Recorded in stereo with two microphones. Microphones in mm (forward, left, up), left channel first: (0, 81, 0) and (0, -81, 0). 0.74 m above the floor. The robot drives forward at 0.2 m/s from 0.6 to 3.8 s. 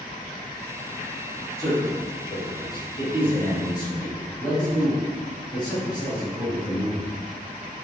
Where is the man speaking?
30° left (ahead or behind), 1.9 m; by 7.2 s 25° left (ahead or behind), 2 m.